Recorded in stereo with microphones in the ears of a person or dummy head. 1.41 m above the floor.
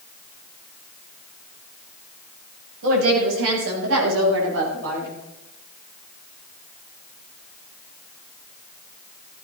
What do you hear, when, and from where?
2.8 s a woman speaking: 85° right, 8.5 m; by 5.1 s 80° right, 11 m